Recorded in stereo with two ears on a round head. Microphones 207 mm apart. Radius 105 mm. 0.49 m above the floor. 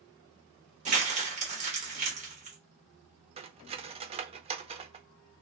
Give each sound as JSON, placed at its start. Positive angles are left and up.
{"t": 0.8, "sound": "crumpling", "side_deg": -30, "distance_m": 1.3}
{"t": 3.4, "sound": "cutlery clinking", "side_deg": -25, "distance_m": 0.5}